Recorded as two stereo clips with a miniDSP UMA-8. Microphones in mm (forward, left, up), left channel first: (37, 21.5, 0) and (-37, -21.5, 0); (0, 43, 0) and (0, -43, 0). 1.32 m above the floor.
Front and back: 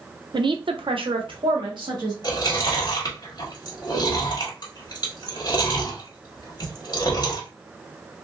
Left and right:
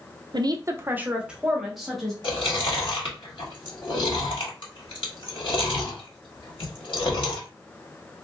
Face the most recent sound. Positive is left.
turn(degrees=70)